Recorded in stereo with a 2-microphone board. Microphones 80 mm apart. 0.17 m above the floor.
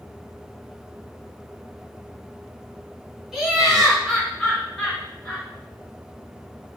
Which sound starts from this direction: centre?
Laughter, at 3.3 s.